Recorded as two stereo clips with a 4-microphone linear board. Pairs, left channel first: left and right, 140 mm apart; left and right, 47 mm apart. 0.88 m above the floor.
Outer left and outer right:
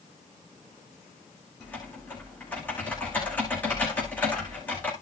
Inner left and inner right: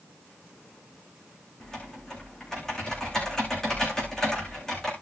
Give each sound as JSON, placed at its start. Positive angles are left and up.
{"t": 1.6, "sound": "typing on a keyboard", "side_deg": 10, "distance_m": 10.0}